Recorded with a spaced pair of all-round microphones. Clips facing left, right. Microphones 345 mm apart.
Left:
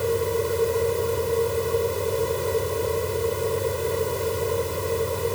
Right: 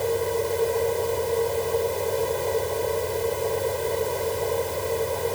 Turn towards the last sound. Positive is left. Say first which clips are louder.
# left 1 dB
turn(degrees=15)  # may be behind; listen again after turning